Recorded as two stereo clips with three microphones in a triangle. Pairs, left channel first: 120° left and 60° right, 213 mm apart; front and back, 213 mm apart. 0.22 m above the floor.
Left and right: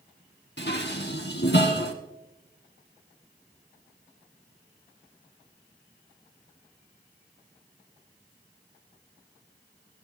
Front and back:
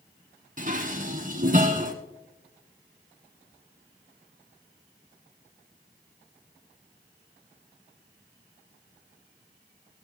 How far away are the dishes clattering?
About 1.6 m.